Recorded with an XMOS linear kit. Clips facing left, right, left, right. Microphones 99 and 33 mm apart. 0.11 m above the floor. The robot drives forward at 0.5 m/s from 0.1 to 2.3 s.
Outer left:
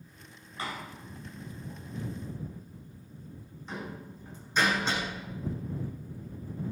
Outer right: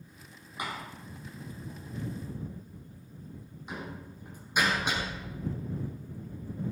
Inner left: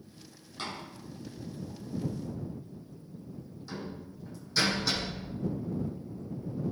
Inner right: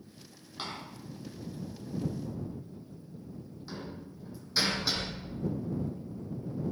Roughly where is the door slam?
Centre.